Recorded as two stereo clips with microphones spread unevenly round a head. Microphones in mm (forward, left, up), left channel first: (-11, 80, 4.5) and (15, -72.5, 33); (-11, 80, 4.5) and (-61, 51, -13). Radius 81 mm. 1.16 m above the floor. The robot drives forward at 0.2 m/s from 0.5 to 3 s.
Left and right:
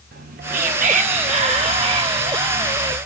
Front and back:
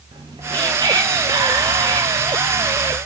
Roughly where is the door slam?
I don't hear a door slam.